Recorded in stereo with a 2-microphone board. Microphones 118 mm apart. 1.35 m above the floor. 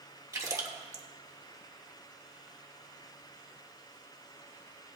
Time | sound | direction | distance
0.3 | a splash | 25° right (ahead or behind) | 1.2 m